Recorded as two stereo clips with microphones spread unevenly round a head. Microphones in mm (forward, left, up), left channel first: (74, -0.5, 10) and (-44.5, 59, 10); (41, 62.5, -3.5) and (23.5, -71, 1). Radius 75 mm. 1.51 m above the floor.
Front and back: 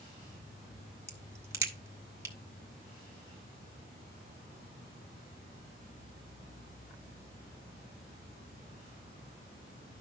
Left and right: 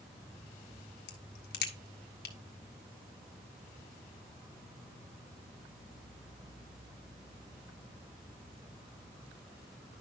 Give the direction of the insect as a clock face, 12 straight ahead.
12 o'clock.